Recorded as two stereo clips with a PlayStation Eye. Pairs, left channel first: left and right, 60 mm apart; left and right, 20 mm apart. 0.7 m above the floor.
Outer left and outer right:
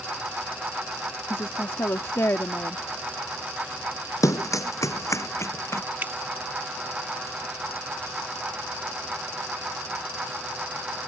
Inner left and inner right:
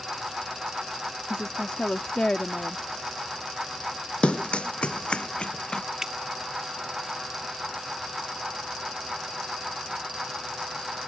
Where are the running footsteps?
70° left (ahead or behind); by 5.8 s 50° left (ahead or behind).